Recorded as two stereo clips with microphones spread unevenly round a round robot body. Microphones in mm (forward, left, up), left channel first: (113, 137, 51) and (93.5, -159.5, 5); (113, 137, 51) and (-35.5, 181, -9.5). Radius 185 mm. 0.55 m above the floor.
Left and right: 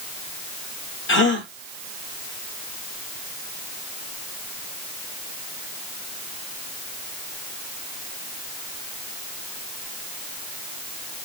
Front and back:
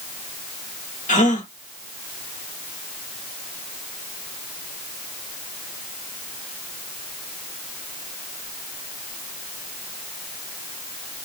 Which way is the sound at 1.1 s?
35° left.